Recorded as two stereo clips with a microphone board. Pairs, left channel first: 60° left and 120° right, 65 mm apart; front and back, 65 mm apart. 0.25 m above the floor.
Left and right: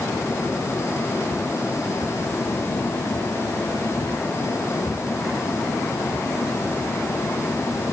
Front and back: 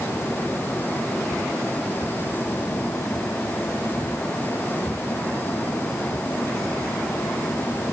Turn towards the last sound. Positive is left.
No sound to turn to.